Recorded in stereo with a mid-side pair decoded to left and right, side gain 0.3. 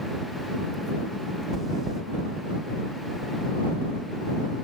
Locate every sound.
1.5 s chewing: 60° right